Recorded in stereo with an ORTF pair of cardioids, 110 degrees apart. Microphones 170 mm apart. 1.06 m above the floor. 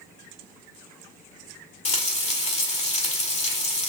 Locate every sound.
1.9 s frying: 45° left, 1.6 m